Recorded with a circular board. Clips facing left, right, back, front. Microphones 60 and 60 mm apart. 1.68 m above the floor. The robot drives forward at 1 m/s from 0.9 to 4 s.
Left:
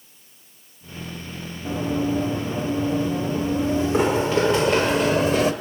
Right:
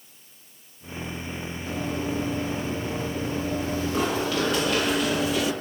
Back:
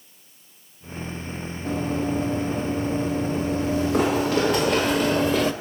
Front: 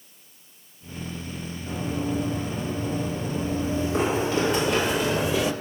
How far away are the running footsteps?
About 5 m.